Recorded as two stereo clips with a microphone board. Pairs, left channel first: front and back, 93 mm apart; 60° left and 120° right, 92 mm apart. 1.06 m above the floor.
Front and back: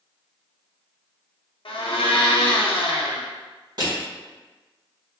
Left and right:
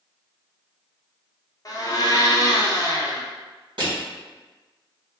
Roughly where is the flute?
I don't hear a flute.